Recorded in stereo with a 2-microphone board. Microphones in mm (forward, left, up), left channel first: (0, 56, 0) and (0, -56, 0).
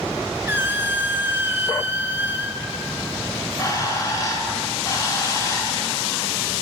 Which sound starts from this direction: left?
A bird, at 3.3 s.